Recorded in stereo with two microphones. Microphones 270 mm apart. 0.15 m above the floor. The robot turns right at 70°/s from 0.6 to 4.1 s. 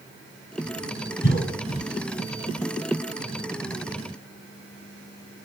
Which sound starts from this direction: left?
A cough, at 1.2 s.